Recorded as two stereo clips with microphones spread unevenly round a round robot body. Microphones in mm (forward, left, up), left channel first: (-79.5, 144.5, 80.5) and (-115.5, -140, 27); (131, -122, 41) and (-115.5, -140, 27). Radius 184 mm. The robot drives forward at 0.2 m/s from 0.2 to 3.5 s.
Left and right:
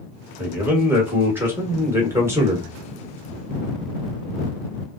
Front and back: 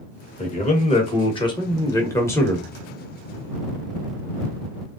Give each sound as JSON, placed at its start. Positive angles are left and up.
{"t": 0.4, "sound": "a man speaking", "azimuth_deg": -35, "distance_m": 1.2}